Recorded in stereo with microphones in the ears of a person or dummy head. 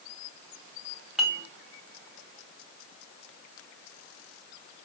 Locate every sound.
1.2 s dishes clattering: centre (ahead or behind), 2.5 m